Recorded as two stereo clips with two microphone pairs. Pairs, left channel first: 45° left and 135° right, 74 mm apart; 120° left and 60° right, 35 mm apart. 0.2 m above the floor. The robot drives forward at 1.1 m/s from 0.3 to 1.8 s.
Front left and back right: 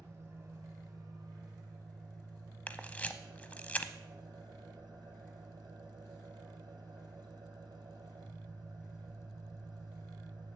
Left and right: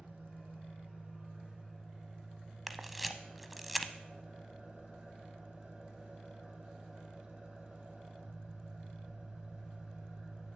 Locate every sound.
0.0 s an engine running: 85° right, 2.5 m; by 10.6 s 125° right, 2.5 m
2.7 s a camera shutter: 25° left, 0.7 m